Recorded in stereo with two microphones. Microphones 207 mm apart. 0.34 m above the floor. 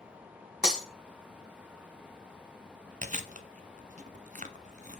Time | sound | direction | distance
0.6 | breaking glass | 5° right (ahead or behind) | 2 m
3.0 | chewing | 40° right (ahead or behind) | 0.9 m